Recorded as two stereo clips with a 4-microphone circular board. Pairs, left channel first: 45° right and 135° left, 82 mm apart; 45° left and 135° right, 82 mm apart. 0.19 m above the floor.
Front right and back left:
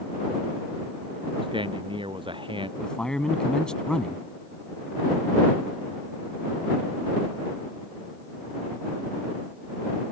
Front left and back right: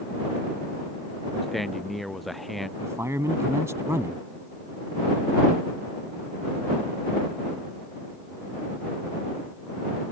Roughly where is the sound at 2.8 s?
Behind right.